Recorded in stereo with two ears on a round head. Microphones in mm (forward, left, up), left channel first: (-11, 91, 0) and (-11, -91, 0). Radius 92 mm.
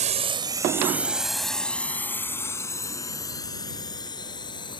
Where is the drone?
40° right (ahead or behind); by 4.8 s 25° left (ahead or behind).